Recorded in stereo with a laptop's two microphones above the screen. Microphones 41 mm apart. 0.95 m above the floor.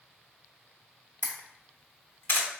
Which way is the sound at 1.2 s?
70° left (ahead or behind).